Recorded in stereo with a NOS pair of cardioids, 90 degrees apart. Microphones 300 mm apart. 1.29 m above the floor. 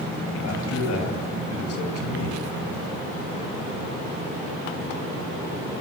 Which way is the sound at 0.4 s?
60° left.